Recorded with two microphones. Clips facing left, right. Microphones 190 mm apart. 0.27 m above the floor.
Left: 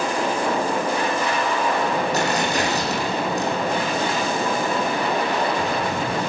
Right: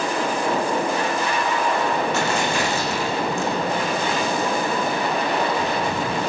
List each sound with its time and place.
2.1 s tearing paper: 35° left (ahead or behind), 8 m